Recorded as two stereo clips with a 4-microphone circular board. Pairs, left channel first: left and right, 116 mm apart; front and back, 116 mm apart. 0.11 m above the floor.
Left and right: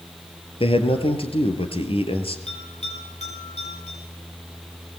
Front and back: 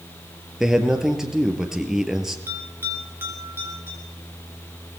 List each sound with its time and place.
0.6 s a man speaking: 95° left, 3 m
2.5 s a bell: 110° left, 6 m